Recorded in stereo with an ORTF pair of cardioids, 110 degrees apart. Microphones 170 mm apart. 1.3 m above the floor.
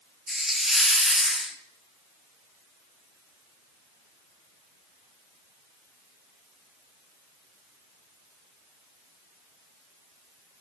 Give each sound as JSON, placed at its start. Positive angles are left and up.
{"t": 0.3, "sound": "a hiss", "azimuth_deg": 0, "distance_m": 0.6}